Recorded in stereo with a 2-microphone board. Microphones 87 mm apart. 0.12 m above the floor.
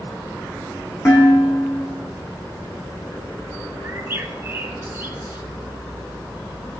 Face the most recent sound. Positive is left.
turn(degrees=-30)  # may be behind; listen again after turning